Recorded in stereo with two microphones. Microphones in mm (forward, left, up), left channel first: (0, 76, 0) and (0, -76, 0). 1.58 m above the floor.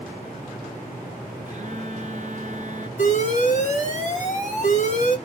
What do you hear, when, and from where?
1.5 s a phone buzzing: 50° right (ahead or behind), 0.7 m
3.0 s an alarm: 50° left (ahead or behind), 1.2 m